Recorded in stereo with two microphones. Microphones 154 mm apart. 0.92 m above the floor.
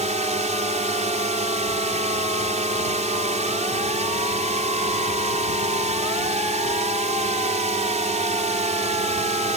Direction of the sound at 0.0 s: 50° right (ahead or behind).